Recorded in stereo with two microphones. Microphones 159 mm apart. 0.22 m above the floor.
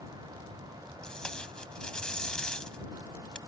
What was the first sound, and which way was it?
Tape being pulled, 5° left (ahead or behind).